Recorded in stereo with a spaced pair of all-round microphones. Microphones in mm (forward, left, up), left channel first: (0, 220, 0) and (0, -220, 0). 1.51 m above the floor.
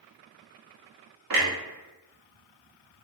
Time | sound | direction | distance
1.3 | a clunk | 55° right (ahead or behind) | 0.6 m